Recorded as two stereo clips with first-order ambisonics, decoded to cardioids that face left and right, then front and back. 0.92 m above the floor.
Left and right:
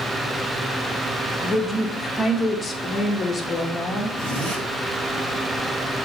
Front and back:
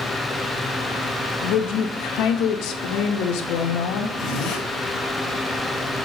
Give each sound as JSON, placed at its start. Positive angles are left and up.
{"t": 1.4, "sound": "a woman speaking", "azimuth_deg": 15, "distance_m": 1.1}
{"t": 4.2, "sound": "a zipper", "azimuth_deg": -40, "distance_m": 3.0}